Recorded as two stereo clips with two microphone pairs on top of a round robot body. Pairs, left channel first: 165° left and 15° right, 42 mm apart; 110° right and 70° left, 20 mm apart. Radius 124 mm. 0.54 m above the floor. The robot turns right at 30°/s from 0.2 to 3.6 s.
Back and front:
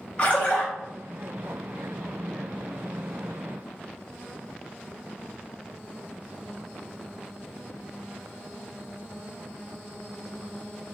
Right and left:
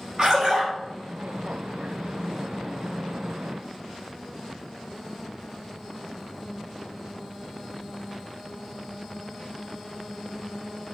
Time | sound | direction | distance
0.2 | a splash | 95° left | 0.6 m